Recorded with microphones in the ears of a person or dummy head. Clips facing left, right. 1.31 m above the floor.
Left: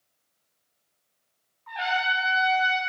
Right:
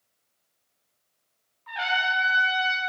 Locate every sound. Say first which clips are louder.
1.7 s a trumpet: left 1 dB; 35° right (ahead or behind), 2 m